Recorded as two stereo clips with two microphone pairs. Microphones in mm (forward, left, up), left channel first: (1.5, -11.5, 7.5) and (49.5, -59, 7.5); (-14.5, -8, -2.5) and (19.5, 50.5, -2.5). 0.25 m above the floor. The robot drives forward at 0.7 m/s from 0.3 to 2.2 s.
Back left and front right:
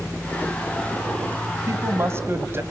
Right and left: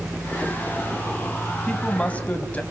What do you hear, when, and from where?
1.7 s a woman speaking: 50° right, 2 m; by 2.6 s 65° right, 1.9 m